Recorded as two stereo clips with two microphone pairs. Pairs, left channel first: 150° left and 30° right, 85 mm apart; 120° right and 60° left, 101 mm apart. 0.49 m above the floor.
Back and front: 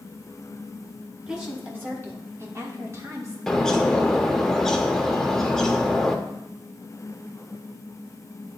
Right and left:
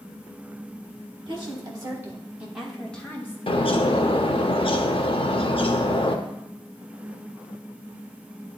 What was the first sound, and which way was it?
A woman speaking, 40° left.